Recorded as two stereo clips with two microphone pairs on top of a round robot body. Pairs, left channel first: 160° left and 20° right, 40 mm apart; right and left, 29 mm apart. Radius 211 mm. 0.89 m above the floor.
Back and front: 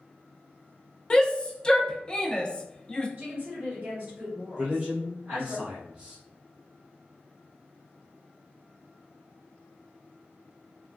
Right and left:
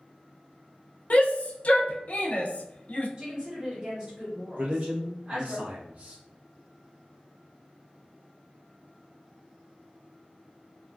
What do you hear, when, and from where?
1.1 s a shout: 130° right, 0.7 m
3.2 s a woman speaking: 25° left, 1.5 m
4.6 s a man speaking: 50° left, 1.3 m